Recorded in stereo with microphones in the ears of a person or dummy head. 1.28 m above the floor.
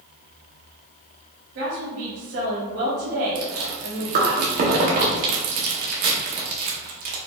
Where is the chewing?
40° right (ahead or behind), 0.6 m.